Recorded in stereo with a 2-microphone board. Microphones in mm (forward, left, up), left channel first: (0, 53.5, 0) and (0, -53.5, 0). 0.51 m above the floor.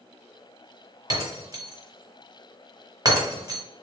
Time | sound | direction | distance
1.1 | breaking glass | 40° right (ahead or behind) | 1.3 m